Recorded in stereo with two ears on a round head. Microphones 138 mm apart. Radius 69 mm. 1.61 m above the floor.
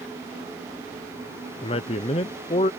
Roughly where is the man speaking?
Left.